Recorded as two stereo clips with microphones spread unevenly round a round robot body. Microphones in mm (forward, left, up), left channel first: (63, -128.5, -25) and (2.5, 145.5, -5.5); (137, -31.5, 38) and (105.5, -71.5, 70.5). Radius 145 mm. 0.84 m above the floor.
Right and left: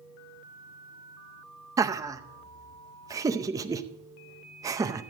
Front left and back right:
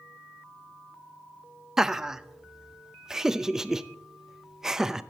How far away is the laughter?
About 0.6 m.